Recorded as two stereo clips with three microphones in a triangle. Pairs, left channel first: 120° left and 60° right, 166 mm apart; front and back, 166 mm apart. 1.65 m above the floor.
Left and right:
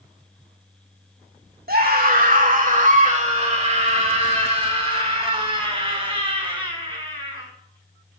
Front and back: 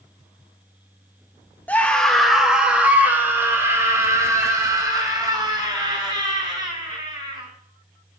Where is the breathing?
I don't hear breathing.